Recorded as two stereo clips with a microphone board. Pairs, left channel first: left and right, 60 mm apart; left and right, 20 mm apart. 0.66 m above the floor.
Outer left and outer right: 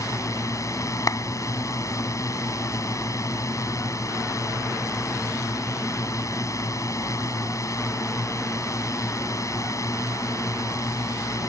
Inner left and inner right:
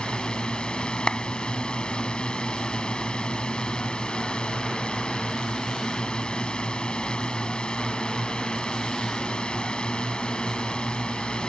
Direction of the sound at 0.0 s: 60° left (ahead or behind).